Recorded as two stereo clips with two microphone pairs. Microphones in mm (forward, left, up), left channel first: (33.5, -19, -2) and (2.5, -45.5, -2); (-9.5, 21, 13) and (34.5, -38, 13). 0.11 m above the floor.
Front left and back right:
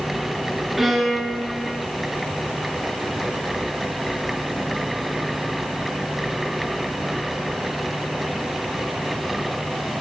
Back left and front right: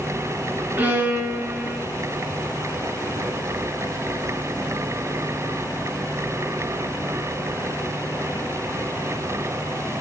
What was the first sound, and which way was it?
A violin, 60° right.